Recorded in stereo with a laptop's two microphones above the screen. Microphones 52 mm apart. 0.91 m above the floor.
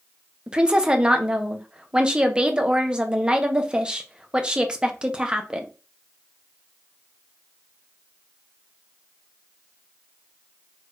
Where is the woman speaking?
20° right (ahead or behind), 0.8 m.